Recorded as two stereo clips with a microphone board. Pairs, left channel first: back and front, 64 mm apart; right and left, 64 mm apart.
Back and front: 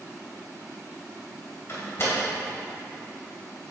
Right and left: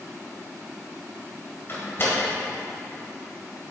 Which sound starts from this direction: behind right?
A door slam, at 1.7 s.